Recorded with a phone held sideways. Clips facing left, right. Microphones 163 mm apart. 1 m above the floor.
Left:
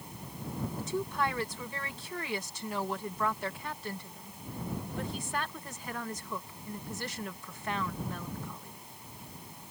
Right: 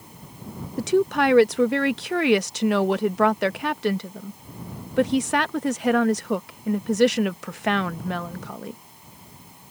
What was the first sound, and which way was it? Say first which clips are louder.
A woman speaking: right 14 dB; 80° right.